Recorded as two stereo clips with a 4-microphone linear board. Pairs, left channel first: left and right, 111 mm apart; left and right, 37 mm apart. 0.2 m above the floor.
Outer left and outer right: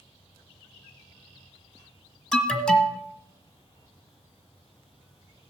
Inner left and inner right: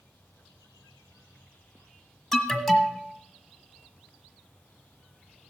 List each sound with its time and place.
2.3 s an alarm: 5° left (ahead or behind), 1.4 m